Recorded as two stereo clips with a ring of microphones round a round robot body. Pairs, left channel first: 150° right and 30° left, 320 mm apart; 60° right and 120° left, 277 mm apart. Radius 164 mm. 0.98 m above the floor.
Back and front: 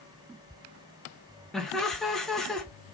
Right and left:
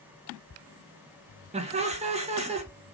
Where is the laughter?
125° left, 0.8 m.